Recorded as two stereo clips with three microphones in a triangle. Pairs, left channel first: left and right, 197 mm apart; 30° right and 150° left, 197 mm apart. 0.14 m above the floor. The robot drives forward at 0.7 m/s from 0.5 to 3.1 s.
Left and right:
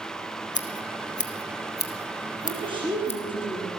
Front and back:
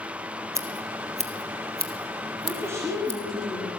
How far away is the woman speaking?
About 1.7 m.